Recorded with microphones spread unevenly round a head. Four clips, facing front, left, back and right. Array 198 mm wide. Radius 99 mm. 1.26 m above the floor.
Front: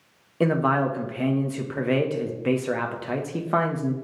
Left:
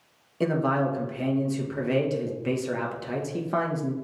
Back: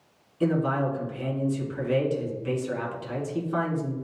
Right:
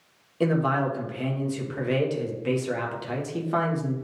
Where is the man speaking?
5° left, 1.4 m.